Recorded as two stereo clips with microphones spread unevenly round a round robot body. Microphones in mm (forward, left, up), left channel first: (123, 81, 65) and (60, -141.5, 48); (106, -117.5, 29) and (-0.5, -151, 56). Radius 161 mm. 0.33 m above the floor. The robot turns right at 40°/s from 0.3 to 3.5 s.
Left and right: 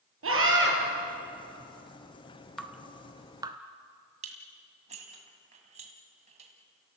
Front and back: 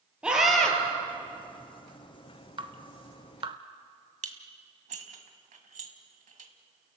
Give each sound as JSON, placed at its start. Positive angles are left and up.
{"t": 0.2, "sound": "a scream", "azimuth_deg": -80, "distance_m": 7.0}
{"t": 2.6, "sound": "dripping", "azimuth_deg": 170, "distance_m": 1.3}
{"t": 4.2, "sound": "dishes clattering", "azimuth_deg": -170, "distance_m": 1.7}